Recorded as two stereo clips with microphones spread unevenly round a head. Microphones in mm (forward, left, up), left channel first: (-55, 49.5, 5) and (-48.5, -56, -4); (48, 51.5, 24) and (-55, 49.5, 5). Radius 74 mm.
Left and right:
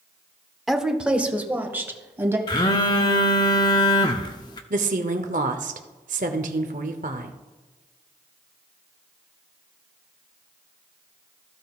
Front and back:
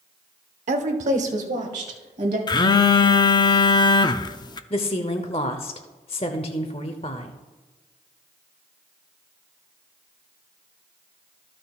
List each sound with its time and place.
0.7 s a woman speaking: 175° right, 1.0 m; by 2.4 s 155° right, 2.5 m
2.5 s a phone buzzing: 40° left, 0.5 m
4.7 s a woman speaking: 55° right, 0.8 m